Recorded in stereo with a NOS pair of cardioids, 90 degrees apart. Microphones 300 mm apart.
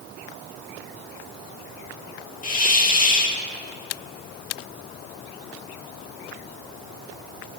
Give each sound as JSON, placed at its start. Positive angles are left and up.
{"t": 2.4, "sound": "a hiss", "azimuth_deg": 25, "distance_m": 2.0}